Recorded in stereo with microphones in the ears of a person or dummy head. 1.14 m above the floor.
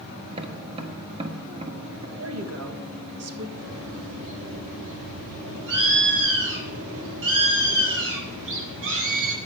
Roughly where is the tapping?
Right.